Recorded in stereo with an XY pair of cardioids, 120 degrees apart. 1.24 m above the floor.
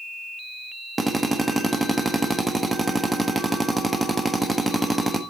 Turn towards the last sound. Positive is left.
turn(degrees=-15)